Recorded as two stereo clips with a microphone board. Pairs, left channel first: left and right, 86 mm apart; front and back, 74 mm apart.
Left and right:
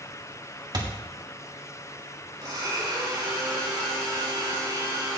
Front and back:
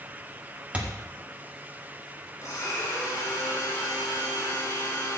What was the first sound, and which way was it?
A thud, 110° right.